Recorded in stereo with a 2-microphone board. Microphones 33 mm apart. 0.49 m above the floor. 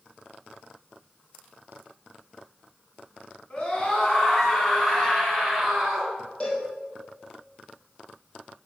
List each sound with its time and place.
3.5 s a scream: 25° left (ahead or behind), 4 m; by 6.1 s 15° right (ahead or behind), 4 m
6.4 s a cowbell: 30° left (ahead or behind), 3.5 m